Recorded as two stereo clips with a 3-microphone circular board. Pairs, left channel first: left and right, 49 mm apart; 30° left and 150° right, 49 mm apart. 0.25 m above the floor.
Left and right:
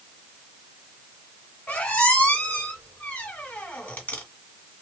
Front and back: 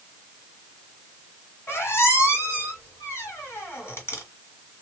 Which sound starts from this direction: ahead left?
A squeak, at 1.7 s.